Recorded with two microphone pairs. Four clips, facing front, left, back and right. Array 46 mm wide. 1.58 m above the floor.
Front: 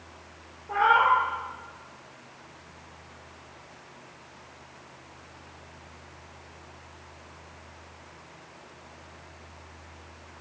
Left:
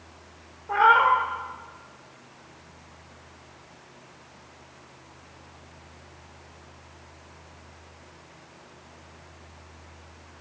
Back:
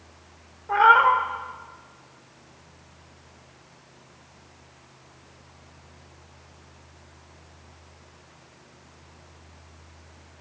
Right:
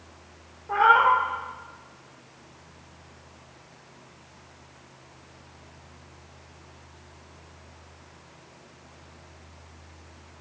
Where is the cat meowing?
150° left, 1.4 m.